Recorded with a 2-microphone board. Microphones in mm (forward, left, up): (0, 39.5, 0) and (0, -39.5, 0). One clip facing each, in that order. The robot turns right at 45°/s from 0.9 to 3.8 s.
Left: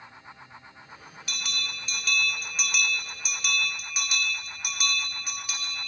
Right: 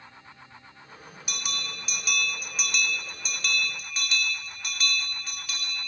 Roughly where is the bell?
Centre.